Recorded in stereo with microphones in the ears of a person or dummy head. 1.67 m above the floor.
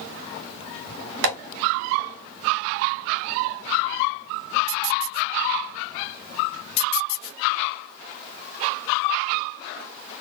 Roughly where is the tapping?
Right.